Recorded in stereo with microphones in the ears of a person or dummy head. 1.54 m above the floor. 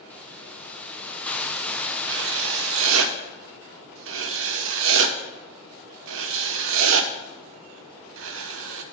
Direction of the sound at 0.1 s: 10° left (ahead or behind).